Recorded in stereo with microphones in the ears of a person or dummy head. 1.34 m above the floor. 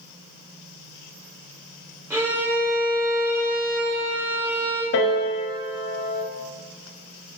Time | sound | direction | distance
2.1 | a violin | 5° right (ahead or behind) | 0.5 m
4.9 | a piano | 55° left (ahead or behind) | 0.6 m